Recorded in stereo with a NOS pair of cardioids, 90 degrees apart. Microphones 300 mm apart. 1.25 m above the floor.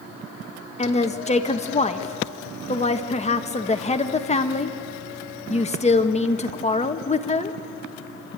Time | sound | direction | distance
0.8 | a woman speaking | 20° left | 1.5 m